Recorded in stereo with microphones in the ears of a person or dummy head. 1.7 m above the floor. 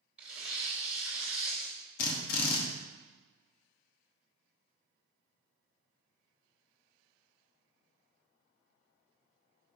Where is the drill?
55° left (ahead or behind), 1.1 m.